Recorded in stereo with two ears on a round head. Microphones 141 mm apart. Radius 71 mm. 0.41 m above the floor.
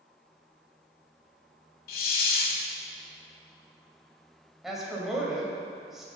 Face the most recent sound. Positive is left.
turn(degrees=-5)  # may be behind; listen again after turning